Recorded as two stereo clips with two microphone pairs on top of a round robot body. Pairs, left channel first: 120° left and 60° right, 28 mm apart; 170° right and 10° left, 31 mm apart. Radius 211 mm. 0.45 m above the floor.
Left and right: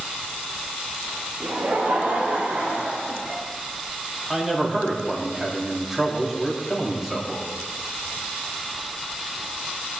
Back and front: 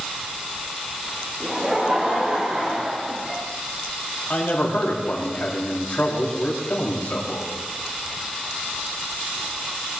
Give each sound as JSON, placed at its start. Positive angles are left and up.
{"t": 1.4, "sound": "laughter", "azimuth_deg": -65, "distance_m": 3.0}
{"t": 4.3, "sound": "a man speaking", "azimuth_deg": -140, "distance_m": 4.5}